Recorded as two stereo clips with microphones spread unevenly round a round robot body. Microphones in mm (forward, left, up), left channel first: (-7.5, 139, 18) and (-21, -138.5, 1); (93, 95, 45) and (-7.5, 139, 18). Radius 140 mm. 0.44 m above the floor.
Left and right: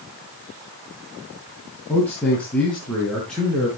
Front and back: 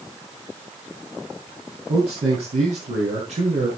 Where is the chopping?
I don't hear chopping.